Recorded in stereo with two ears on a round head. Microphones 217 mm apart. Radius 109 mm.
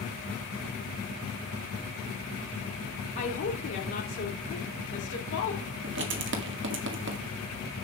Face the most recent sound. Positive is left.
turn(degrees=-50)  # may be behind; listen again after turning